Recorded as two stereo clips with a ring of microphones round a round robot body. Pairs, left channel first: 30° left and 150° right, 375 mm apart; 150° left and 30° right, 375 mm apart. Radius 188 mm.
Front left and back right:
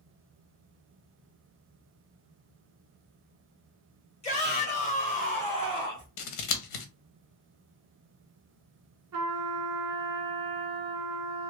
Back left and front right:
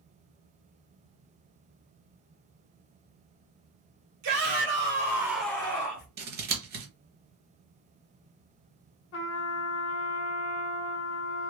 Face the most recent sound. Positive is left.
turn(degrees=-170)